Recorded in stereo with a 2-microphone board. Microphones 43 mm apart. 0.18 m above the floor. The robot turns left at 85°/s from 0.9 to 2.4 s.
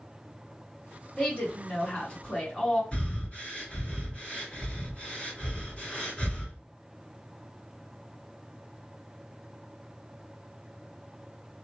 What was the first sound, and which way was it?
A woman speaking, 140° left.